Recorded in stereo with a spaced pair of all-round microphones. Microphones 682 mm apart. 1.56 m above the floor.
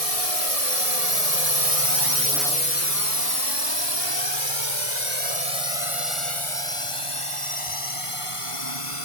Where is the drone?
60° right (ahead or behind); by 9.1 s 45° left (ahead or behind).